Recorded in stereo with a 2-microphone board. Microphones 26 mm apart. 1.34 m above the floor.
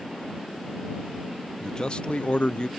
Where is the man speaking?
25° left (ahead or behind); by 2.7 s 40° left (ahead or behind).